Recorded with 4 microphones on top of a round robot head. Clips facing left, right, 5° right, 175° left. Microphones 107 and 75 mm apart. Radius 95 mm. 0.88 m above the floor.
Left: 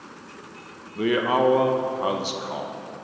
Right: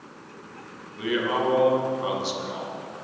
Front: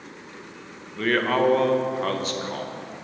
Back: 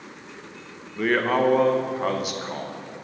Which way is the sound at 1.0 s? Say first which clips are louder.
Left 4 dB, even; 95° left.